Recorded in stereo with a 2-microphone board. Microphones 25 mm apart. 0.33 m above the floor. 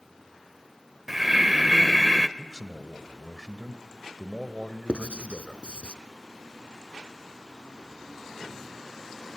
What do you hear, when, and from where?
1.1 s breathing: 10° right (ahead or behind), 0.8 m
2.4 s a man speaking: 10° right (ahead or behind), 1.7 m
4.9 s writing: 65° left (ahead or behind), 0.9 m